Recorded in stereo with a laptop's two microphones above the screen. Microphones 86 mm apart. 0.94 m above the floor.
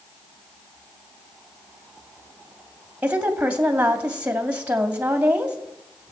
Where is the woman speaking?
15° right (ahead or behind), 2.5 m.